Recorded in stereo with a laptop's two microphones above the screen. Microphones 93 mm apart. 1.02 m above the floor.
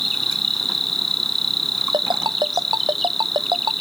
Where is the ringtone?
50° right (ahead or behind).